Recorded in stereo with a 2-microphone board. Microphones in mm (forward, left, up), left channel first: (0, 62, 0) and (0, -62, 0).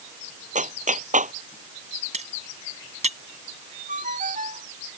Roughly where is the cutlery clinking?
Right.